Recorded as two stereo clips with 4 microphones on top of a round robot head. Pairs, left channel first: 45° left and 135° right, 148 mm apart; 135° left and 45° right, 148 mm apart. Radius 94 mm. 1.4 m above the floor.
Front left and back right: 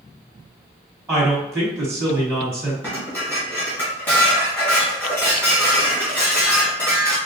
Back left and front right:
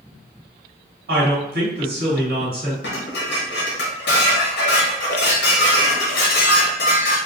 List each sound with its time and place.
1.1 s a woman speaking: 60° right, 1.9 m
2.8 s dishes clattering: 125° left, 1.2 m